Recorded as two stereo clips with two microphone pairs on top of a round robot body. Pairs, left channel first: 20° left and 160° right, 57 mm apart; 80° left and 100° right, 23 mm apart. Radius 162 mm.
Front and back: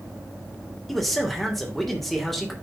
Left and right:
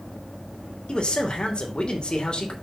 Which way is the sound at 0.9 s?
110° left.